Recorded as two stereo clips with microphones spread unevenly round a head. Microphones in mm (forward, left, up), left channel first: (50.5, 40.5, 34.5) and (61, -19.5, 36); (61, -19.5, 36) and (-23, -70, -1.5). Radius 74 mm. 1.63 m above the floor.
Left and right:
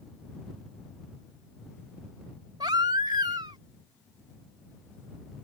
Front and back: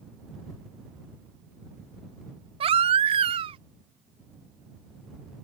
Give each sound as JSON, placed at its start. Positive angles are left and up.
{"t": 2.6, "sound": "a baby crying", "azimuth_deg": -115}